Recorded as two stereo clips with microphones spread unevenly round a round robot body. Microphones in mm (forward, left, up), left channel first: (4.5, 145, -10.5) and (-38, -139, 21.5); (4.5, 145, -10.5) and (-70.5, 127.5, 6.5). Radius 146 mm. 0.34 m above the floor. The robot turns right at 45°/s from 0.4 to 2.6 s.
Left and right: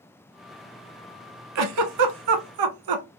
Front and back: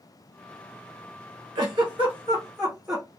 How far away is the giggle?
About 0.7 m.